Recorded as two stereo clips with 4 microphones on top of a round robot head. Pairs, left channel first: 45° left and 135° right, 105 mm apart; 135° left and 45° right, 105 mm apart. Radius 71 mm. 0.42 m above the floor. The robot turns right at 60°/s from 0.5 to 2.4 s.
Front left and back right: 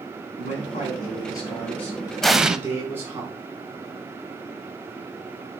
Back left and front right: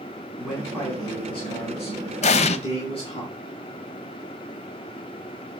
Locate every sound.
0.4 s a man speaking: 45° left, 5 m; by 3.2 s 160° left, 5 m
2.2 s an explosion: 130° left, 0.8 m; by 2.6 s 140° left, 0.8 m